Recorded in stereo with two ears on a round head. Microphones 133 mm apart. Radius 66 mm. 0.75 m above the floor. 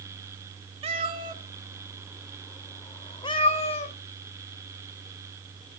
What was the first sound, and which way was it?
A cat meowing, 40° right (ahead or behind).